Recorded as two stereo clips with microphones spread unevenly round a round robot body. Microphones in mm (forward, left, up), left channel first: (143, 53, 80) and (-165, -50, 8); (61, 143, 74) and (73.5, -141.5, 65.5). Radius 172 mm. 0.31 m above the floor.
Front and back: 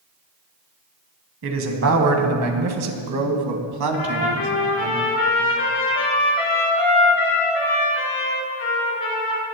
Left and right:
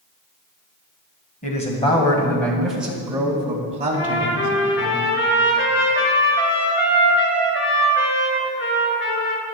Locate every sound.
1.4 s a man speaking: 160° left, 2 m; by 4.9 s 140° right, 2.5 m
3.9 s a trumpet: 40° left, 3.5 m